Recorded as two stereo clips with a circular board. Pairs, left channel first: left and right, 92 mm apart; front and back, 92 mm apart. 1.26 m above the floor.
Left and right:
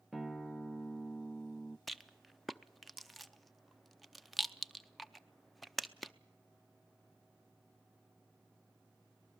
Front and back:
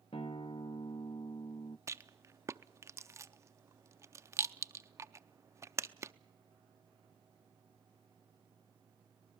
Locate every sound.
0.1 s a guitar: straight ahead, 0.8 m
1.9 s a rattle: straight behind, 0.6 m